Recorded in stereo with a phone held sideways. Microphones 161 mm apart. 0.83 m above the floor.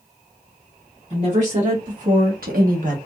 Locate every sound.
1.1 s a woman speaking: 45° right (ahead or behind), 1.8 m; by 3.0 s 50° right (ahead or behind), 0.9 m